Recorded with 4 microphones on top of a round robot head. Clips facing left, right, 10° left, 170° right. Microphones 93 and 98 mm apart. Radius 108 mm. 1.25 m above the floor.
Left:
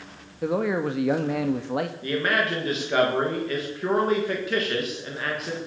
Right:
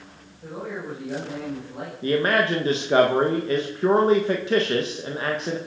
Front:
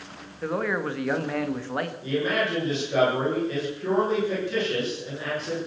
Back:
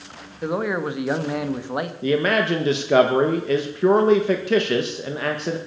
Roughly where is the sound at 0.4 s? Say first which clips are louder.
Left 9 dB, back 3 dB; behind left.